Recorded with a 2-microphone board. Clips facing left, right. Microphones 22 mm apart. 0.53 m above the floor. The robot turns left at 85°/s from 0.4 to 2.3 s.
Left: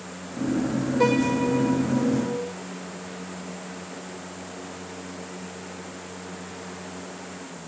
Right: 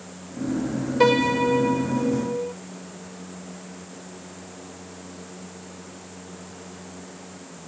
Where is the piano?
30° right, 2 m; by 2.5 s 140° right, 2 m.